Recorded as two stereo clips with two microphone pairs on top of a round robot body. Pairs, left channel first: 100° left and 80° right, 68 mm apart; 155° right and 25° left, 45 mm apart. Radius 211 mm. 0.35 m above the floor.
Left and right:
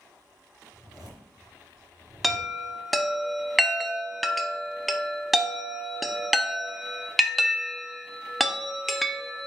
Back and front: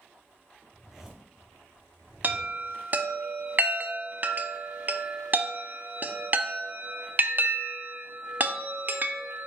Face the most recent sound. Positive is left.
turn(degrees=10)